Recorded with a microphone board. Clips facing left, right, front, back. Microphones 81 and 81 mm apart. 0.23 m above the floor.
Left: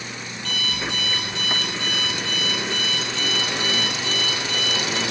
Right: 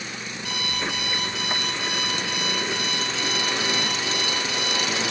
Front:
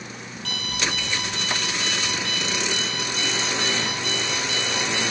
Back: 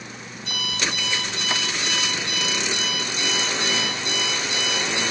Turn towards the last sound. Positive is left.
turn(degrees=-10)